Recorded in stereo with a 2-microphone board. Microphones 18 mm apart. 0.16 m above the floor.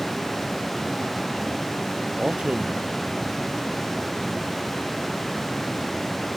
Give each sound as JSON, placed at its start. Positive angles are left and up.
{"t": 2.2, "sound": "a man speaking", "side_deg": -70}